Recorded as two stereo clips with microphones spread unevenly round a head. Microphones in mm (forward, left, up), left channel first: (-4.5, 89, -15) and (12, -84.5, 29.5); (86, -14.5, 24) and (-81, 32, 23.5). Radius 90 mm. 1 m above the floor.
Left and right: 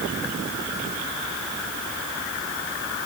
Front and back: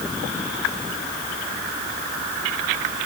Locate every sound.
Only background noise.